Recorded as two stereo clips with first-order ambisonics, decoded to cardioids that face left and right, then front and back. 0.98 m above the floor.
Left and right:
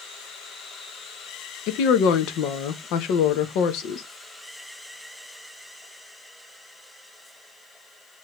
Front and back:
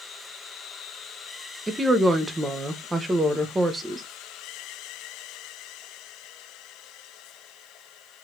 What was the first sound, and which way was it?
A woman speaking, 100° left.